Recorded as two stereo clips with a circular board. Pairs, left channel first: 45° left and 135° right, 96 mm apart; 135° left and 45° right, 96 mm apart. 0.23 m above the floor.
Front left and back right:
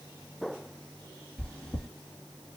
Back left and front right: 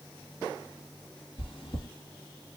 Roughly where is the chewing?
Behind left.